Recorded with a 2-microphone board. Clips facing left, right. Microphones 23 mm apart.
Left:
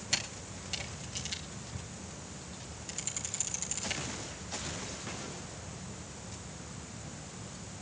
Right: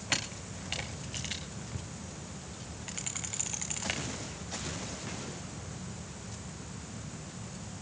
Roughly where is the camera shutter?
Right.